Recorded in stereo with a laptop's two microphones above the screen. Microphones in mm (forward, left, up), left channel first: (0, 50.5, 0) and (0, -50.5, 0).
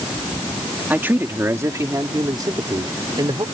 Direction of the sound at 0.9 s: 15° right (ahead or behind).